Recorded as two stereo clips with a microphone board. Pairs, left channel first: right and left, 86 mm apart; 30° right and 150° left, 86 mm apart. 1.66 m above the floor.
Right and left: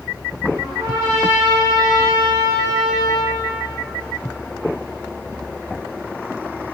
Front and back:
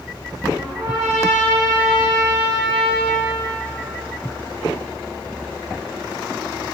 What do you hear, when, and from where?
0.6 s a trumpet: 100° left, 3 m